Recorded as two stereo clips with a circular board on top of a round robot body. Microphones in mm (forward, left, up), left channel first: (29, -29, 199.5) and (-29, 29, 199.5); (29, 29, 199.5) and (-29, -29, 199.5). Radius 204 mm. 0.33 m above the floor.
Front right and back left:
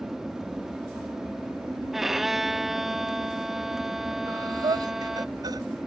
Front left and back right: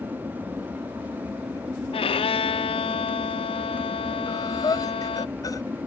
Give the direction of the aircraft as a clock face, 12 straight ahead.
5 o'clock.